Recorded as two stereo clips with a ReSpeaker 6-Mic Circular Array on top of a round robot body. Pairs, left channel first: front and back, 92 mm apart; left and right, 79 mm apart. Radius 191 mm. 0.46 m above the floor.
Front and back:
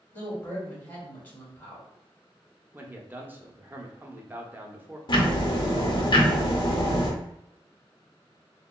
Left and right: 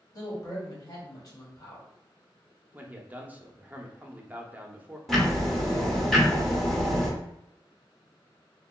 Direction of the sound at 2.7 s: 135° right.